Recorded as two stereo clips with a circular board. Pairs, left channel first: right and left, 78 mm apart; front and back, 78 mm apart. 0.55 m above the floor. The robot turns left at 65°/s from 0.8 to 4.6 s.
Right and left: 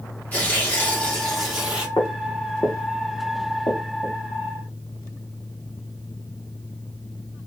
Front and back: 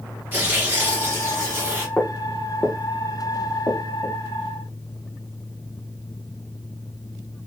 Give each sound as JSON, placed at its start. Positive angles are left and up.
{"t": 0.3, "sound": "tearing paper", "azimuth_deg": -140, "distance_m": 1.0}
{"t": 2.0, "sound": "footsteps", "azimuth_deg": -85, "distance_m": 0.9}